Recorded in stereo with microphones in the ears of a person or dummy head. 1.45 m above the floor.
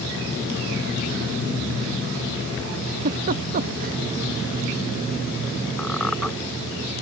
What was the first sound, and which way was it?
A giggle, 40° right (ahead or behind).